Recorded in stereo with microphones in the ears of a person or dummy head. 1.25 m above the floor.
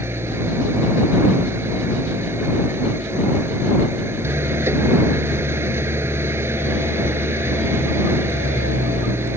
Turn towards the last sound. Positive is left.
turn(degrees=-10)  # may be behind; listen again after turning